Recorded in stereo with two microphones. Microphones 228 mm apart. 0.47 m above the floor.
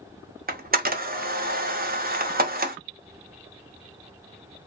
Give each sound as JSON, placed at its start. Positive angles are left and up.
{"t": 0.5, "sound": "a camera shutter", "side_deg": -40, "distance_m": 0.5}